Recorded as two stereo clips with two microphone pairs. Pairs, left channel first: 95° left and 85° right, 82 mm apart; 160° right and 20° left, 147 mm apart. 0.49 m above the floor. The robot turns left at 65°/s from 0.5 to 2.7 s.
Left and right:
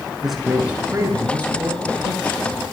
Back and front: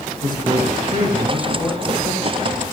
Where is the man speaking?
Straight ahead, 7 m; by 2.7 s 140° right, 7 m.